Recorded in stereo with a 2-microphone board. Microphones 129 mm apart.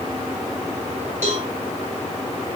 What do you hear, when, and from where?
1.2 s a cowbell: 70° right (ahead or behind), 9.5 m